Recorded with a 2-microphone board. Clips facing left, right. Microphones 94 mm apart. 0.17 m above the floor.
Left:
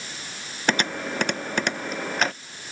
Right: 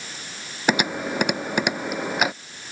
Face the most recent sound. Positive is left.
turn(degrees=-10)  # may be behind; listen again after turning